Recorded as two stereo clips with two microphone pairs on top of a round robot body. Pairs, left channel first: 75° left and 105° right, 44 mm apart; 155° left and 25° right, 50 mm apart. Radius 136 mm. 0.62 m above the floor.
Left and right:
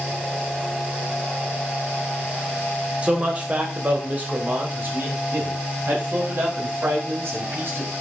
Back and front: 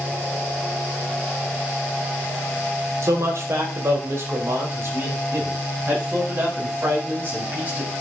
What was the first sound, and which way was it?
A man speaking, 40° right.